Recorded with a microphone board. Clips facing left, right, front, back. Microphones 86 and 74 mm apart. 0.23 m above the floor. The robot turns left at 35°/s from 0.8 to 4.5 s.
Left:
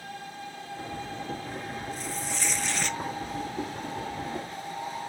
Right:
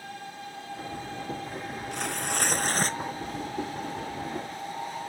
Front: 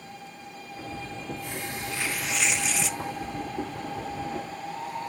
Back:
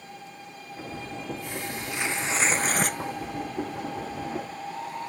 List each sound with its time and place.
1.9 s tearing paper: 105° right; by 3.0 s 145° right